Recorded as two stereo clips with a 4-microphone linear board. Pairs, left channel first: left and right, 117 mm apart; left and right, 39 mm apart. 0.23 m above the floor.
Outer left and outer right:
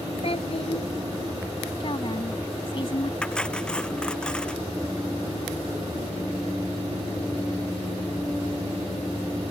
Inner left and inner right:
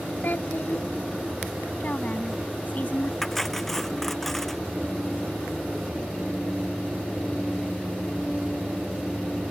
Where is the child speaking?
60° left (ahead or behind).